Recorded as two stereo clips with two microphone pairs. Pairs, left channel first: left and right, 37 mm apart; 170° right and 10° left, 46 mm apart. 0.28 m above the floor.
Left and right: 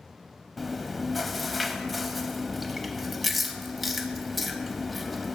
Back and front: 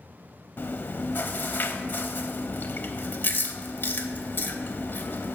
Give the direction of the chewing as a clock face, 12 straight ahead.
6 o'clock.